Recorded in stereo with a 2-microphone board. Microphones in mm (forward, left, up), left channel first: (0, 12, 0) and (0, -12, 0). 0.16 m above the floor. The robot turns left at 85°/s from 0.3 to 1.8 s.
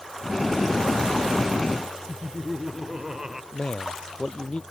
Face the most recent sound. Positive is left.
turn(degrees=50)  # may be behind; listen again after turning